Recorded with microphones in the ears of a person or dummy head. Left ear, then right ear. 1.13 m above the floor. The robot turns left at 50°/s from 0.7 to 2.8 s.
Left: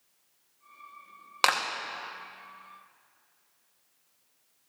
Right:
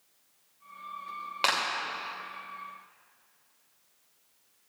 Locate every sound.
1.4 s a clap: 30° left (ahead or behind), 1.1 m; by 1.6 s 35° left (ahead or behind), 1.1 m